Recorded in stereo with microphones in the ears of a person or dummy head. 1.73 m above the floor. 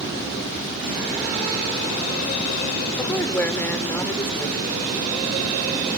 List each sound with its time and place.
3.0 s a woman speaking: 15° left (ahead or behind)